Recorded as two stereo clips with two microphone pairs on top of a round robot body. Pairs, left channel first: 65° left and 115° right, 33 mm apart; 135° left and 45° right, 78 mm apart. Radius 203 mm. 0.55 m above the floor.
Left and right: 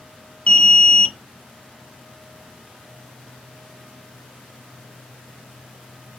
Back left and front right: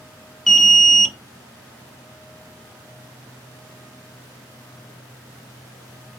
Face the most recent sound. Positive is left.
turn(degrees=55)